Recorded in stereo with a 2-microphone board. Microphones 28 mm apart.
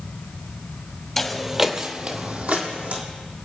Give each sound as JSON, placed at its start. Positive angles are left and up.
{"t": 1.2, "sound": "footsteps", "side_deg": 10, "distance_m": 1.5}